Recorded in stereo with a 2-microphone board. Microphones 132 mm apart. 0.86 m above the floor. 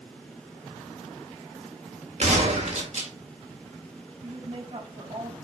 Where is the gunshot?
70° right (ahead or behind), 2 m.